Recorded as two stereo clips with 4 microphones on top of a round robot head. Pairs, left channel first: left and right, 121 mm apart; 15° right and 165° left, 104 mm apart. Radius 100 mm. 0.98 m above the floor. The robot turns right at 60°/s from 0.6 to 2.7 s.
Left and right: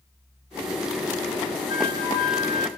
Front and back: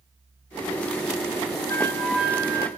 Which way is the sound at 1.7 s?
50° left.